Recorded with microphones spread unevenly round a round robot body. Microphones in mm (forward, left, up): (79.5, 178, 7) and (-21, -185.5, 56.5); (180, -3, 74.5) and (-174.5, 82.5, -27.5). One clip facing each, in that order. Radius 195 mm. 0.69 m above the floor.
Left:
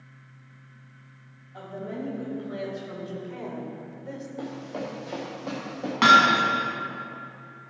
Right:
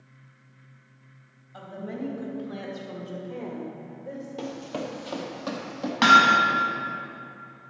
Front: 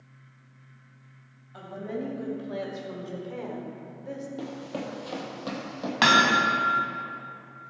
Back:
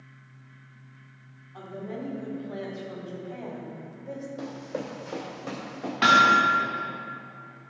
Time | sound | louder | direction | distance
1.5 | a woman speaking | even, front 2 dB | 45° right | 4 m
4.4 | running footsteps | right 1 dB, even | 85° right | 1.4 m
6.0 | hammering | even, front 1 dB | 25° right | 1.6 m